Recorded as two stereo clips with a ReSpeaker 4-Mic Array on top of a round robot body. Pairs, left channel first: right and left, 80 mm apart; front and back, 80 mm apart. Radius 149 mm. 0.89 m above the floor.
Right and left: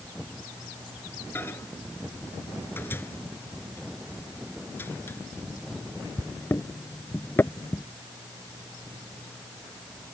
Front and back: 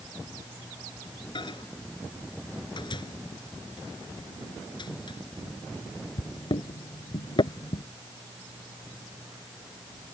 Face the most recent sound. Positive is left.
turn(degrees=-25)